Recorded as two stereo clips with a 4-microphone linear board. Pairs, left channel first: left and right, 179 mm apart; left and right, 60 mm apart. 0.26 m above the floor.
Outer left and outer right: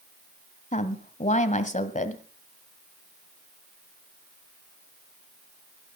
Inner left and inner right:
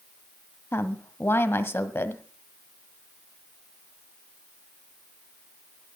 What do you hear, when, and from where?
0.7 s a woman speaking: 40° left (ahead or behind), 1.2 m